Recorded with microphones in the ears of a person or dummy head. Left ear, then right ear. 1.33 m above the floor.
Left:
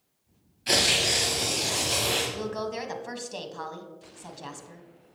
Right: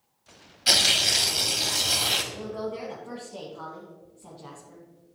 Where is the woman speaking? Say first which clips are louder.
Left 2 dB; 70° left (ahead or behind), 1.3 m.